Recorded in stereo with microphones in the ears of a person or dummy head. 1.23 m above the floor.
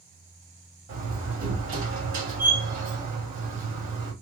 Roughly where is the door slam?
Right.